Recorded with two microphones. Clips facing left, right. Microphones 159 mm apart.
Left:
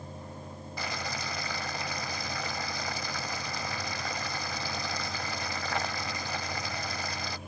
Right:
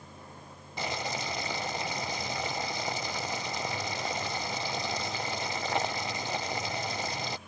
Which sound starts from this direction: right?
Boiling, at 0.8 s.